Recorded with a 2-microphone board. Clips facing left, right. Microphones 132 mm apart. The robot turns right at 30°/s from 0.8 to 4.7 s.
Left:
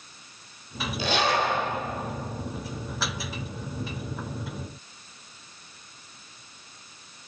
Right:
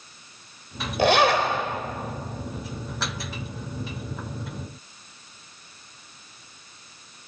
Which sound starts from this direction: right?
A zipper, at 1.0 s.